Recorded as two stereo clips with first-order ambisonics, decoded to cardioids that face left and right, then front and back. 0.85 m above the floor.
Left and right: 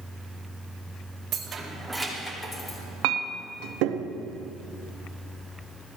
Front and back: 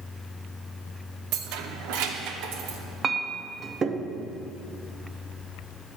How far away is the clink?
About 0.5 m.